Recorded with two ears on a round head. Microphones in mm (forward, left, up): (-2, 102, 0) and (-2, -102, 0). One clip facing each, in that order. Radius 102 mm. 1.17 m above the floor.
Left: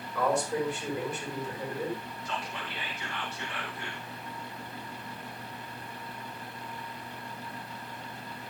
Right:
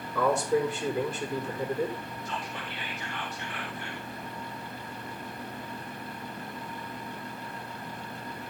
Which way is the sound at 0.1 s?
65° right (ahead or behind).